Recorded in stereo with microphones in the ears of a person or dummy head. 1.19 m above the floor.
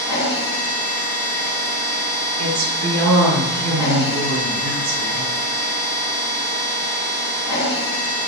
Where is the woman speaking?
75° right (ahead or behind), 0.9 m.